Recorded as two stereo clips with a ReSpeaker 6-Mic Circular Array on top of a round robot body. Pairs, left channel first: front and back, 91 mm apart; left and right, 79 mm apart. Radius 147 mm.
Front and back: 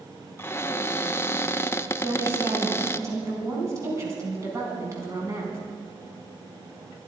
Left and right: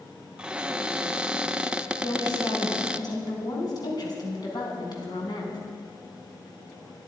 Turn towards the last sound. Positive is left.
turn(degrees=120)